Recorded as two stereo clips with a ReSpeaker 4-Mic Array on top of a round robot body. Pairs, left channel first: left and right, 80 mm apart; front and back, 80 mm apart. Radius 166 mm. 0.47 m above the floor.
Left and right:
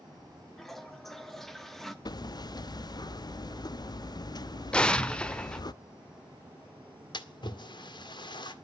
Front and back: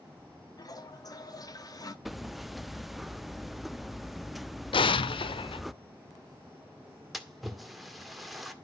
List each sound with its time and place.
0.6 s a toilet flushing: 5° left, 1.6 m
2.0 s hammering: 90° left, 0.7 m
4.7 s an explosion: 10° left, 0.7 m
7.1 s a splash: 90° left, 2 m